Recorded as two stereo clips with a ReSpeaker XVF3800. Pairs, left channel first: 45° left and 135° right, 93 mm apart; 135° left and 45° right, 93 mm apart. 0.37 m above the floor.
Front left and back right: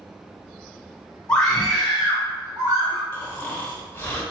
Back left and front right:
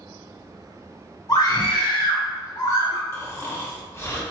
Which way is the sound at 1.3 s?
120° left.